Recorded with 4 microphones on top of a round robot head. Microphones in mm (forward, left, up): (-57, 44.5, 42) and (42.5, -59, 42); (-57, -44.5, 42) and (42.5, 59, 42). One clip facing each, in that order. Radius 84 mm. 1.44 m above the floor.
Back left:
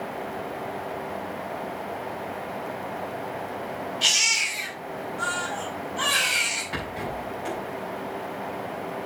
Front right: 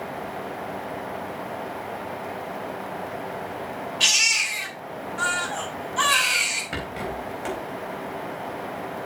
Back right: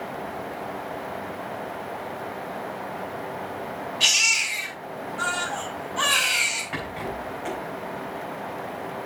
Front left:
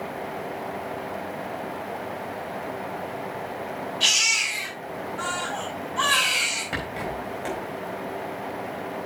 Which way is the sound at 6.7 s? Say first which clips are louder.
Front right 1 dB, front left 1 dB; 10° right.